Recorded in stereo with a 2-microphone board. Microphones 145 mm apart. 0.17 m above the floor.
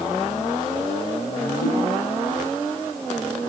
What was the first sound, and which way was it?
A whoosh, 75° left (ahead or behind).